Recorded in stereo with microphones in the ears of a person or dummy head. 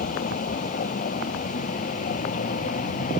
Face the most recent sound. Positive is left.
turn(degrees=40)  # may be behind; listen again after turning